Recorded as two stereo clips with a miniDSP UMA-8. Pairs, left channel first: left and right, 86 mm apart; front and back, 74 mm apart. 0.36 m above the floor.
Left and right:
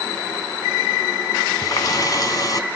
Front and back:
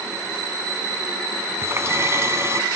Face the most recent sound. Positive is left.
turn(degrees=130)